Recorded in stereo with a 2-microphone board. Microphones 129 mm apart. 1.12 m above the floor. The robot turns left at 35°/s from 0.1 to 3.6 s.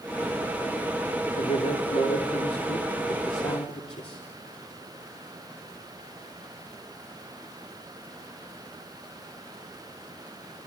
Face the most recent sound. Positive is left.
turn(degrees=55)